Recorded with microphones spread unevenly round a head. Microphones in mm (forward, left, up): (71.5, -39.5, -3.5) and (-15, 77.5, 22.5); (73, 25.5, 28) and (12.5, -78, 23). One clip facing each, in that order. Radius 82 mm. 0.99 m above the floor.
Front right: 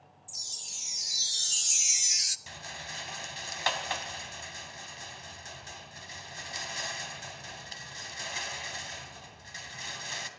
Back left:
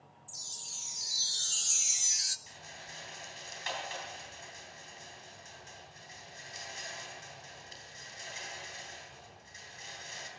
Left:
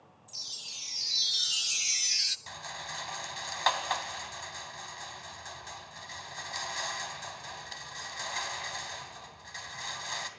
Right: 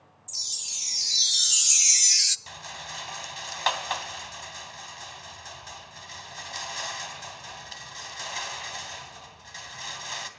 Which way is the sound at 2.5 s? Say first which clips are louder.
Front right 7 dB, right 1 dB; 35° right.